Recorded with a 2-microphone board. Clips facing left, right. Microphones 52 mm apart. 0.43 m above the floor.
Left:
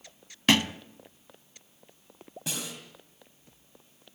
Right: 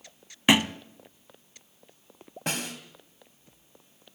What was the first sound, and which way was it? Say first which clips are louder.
A thud: right 2 dB; 15° right (ahead or behind).